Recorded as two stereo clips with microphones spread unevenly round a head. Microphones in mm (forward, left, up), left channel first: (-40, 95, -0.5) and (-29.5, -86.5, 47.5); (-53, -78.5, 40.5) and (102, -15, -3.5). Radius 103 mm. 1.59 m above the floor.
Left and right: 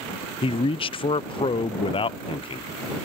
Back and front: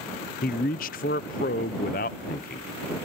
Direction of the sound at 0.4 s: 160° left.